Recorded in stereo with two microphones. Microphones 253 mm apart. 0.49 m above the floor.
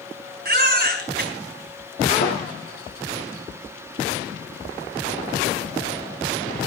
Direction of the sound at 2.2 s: 45° left (ahead or behind).